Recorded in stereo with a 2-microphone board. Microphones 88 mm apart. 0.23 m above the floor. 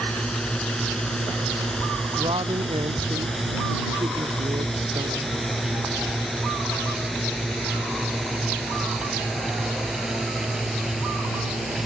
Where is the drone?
10° left (ahead or behind); by 11.9 s centre (ahead or behind).